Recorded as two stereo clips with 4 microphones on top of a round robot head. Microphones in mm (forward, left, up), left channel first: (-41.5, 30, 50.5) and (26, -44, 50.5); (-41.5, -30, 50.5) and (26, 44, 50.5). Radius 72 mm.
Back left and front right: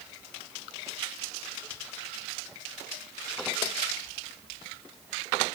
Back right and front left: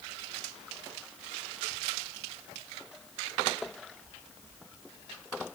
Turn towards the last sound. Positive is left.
No sound to turn to.